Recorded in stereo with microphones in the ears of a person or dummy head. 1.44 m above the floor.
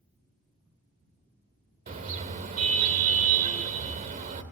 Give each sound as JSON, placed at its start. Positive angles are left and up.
{"t": 1.9, "sound": "a car horn", "side_deg": -40, "distance_m": 2.5}